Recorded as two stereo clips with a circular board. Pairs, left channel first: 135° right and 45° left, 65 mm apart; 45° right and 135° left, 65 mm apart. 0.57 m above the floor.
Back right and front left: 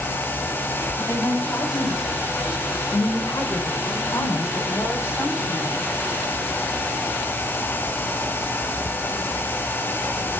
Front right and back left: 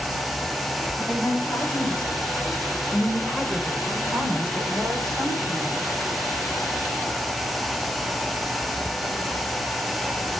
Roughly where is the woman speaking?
Behind right.